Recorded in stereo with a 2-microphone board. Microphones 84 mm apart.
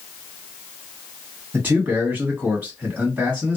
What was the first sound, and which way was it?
A man speaking, 30° right (ahead or behind).